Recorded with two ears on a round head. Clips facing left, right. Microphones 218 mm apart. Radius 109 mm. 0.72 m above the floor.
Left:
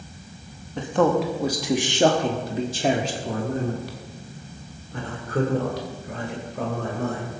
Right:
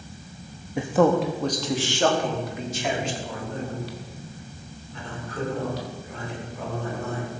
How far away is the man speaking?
About 1.0 m.